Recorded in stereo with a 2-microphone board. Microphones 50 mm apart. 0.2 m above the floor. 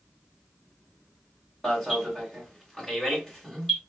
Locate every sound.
1.6 s an alarm: 5° left (ahead or behind), 3 m